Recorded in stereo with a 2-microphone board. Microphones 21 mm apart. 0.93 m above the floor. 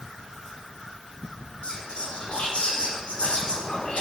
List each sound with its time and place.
1.6 s whispering: 75° left (ahead or behind), 3.5 m